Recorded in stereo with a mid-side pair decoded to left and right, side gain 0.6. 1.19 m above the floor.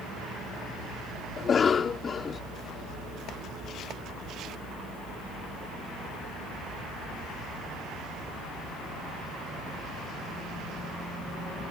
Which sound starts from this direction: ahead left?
A cough, at 1.4 s.